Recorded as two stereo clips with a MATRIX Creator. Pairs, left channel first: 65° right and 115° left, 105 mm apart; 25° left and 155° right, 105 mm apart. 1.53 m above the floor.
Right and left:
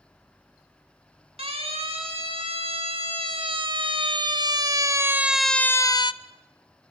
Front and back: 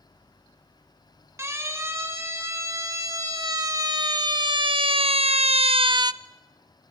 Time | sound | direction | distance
1.4 | a siren | 140° left | 2.5 m